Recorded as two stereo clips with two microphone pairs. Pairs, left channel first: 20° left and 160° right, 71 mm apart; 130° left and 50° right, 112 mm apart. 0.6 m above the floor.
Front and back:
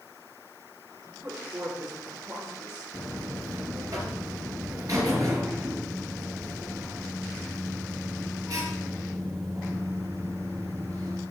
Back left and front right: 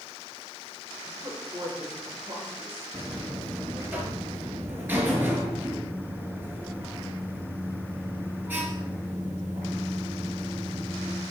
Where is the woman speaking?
110° right, 8.5 m; by 2.8 s 120° right, 8.5 m.